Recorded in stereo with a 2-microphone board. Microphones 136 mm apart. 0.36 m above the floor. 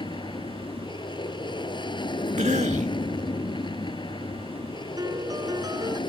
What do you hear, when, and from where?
0.0 s an aircraft: 35° left (ahead or behind)
2.4 s a cough: 60° right (ahead or behind)
5.0 s a piano: 25° right (ahead or behind)